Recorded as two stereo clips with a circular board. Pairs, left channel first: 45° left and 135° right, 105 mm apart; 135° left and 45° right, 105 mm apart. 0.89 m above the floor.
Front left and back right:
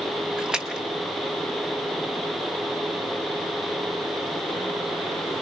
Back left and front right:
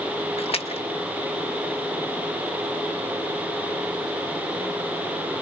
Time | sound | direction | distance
0.4 | a splash | 145° left | 0.9 m